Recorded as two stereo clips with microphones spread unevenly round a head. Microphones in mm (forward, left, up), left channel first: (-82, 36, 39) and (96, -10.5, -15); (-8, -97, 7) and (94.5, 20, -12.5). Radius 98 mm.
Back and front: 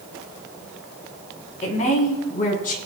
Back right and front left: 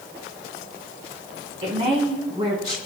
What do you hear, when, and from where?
1.6 s a woman speaking: 110° left, 3.5 m; by 2.8 s 120° left, 3.5 m